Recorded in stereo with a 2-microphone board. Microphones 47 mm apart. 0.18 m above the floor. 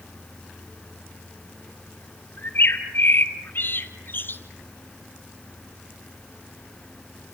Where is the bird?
45° left (ahead or behind), 2 m.